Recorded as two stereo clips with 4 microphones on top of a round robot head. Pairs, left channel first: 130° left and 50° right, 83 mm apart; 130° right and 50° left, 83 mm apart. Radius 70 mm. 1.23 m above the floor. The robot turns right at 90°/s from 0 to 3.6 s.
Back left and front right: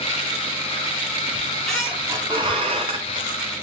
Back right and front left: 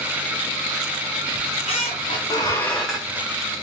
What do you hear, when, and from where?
1.3 s a squeak: straight behind, 0.6 m; by 3.3 s 5° right, 0.6 m